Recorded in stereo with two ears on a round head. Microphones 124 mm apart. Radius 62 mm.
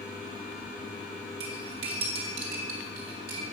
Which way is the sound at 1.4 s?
70° right (ahead or behind).